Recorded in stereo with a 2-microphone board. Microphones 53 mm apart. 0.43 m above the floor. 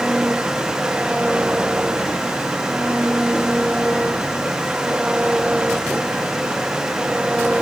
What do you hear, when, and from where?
0.0 s an engine running: 20° right (ahead or behind)